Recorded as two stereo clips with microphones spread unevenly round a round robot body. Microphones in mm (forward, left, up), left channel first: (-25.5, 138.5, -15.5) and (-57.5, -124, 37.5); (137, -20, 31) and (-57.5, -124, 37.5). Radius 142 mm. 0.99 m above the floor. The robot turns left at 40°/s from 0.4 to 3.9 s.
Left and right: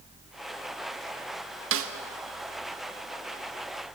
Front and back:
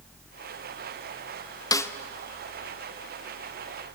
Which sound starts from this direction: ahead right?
A snare drum, at 1.7 s.